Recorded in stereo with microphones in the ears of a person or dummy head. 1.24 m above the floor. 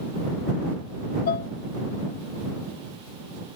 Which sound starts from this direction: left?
Dishes clattering, at 1.3 s.